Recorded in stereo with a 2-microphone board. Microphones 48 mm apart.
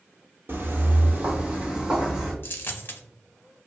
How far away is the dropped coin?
About 0.7 m.